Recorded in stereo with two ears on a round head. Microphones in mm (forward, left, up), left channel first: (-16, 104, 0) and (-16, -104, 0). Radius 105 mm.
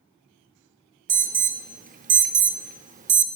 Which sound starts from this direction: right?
An alarm, at 1.1 s.